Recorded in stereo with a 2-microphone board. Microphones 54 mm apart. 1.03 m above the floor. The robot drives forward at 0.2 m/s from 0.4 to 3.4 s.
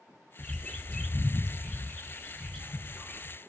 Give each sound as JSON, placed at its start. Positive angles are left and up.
{"t": 0.4, "sound": "a bird", "side_deg": 15, "distance_m": 0.6}